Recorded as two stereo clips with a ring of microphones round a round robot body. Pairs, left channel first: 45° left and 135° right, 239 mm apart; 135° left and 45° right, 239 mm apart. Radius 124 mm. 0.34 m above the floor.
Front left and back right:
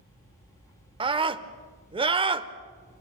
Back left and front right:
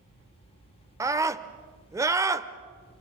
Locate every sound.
1.0 s a scream: 105° right, 0.9 m